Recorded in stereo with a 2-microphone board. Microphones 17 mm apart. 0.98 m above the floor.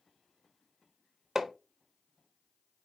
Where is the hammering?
30° right (ahead or behind), 0.9 m.